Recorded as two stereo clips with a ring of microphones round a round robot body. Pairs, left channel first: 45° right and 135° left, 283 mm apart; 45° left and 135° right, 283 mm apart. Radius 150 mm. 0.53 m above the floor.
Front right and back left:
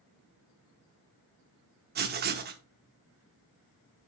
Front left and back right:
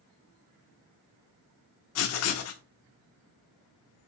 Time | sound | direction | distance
1.9 | writing | 80° left | 0.6 m